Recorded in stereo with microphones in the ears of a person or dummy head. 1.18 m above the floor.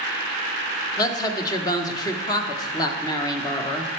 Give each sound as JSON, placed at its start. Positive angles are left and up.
{"t": 1.0, "sound": "a woman speaking", "side_deg": 20, "distance_m": 1.0}